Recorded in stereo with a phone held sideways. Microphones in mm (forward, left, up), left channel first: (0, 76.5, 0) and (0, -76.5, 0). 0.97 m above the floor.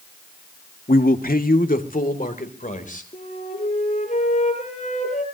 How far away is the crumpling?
I don't hear crumpling.